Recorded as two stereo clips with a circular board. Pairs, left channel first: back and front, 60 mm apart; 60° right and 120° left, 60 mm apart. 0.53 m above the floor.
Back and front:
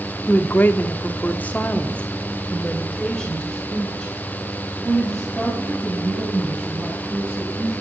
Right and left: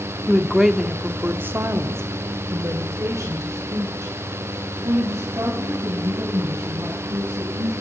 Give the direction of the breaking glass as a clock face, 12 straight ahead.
I don't hear breaking glass.